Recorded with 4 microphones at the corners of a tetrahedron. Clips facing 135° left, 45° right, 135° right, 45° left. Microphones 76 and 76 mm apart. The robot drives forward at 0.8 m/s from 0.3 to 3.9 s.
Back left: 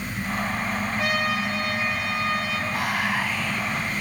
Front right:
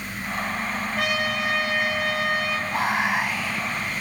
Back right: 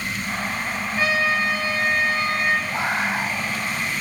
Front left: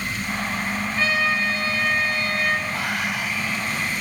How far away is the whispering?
About 1.3 m.